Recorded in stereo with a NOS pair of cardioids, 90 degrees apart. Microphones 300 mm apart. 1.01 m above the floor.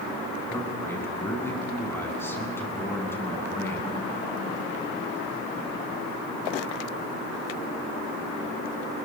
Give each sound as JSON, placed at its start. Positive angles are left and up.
{"t": 0.5, "sound": "a man speaking", "azimuth_deg": 5, "distance_m": 8.5}